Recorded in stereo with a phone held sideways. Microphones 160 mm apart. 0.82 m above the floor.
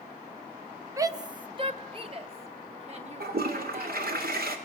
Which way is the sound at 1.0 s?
20° right (ahead or behind).